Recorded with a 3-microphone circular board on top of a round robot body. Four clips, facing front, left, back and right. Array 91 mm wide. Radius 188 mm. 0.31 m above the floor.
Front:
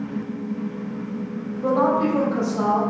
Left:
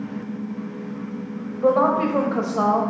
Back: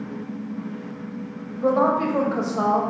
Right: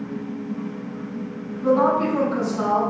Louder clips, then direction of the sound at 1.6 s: Even, even; 120° left.